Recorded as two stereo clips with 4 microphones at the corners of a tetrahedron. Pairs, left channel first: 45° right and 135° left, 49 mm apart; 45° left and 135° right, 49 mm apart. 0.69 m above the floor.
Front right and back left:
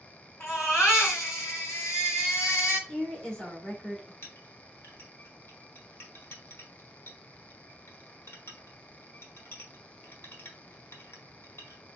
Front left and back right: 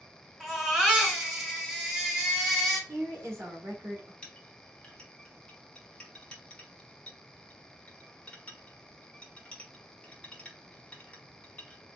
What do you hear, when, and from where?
0.4 s a baby crying: 45° right, 2.5 m
2.9 s a woman speaking: 115° right, 1.7 m
4.2 s a clink: 20° right, 1.4 m